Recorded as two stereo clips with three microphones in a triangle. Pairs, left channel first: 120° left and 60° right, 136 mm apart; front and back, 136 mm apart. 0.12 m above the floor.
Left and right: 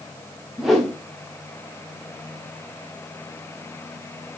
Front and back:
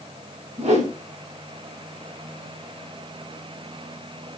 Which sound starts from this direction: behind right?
A whoosh, at 0.6 s.